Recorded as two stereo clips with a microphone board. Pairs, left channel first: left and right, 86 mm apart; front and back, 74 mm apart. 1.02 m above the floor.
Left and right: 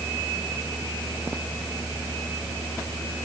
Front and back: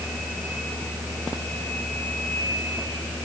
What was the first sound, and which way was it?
Only background noise.